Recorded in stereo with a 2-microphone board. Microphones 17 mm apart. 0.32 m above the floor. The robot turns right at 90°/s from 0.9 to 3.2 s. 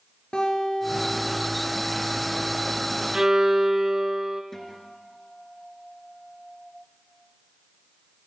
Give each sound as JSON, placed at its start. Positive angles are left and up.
{"t": 0.3, "sound": "a guitar", "azimuth_deg": 120, "distance_m": 5.0}
{"t": 3.1, "sound": "a violin", "side_deg": -35, "distance_m": 1.7}
{"t": 4.5, "sound": "a guitar", "side_deg": 20, "distance_m": 4.0}